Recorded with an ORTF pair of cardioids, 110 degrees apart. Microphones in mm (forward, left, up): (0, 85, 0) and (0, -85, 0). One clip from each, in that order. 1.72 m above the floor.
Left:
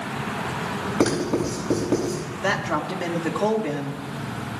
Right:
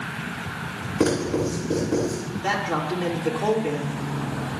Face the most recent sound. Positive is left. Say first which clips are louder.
# left 1 dB
turn(degrees=60)